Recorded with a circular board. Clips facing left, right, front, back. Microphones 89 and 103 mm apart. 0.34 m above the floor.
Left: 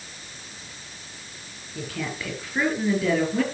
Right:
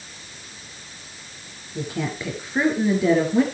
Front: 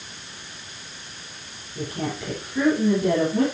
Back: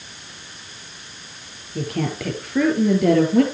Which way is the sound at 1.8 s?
160° right.